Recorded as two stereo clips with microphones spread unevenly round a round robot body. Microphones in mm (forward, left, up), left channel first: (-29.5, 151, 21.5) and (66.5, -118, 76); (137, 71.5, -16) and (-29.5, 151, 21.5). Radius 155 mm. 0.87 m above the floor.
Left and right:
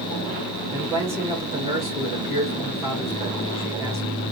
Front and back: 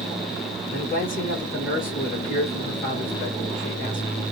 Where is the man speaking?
15° left, 2.0 m.